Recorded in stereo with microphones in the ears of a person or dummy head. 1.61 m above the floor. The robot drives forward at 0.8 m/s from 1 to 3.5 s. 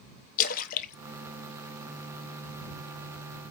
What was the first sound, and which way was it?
A splash, 50° left (ahead or behind).